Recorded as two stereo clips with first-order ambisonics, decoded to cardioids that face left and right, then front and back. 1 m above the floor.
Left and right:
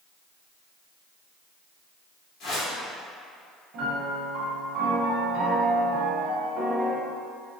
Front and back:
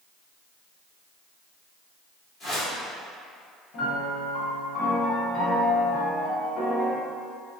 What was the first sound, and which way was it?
A whoosh, 55° left.